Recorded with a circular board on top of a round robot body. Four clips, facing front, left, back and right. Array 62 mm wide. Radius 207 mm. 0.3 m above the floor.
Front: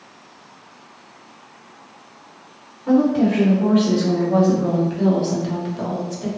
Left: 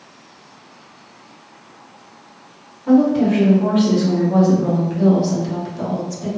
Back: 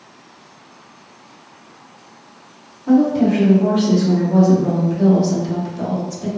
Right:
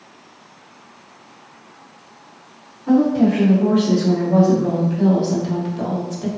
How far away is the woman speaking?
About 2.0 m.